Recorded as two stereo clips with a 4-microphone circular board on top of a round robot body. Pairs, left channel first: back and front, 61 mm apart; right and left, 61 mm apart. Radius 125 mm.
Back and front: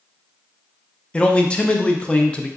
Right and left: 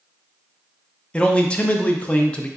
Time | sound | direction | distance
1.1 | a man speaking | 135° right | 0.6 m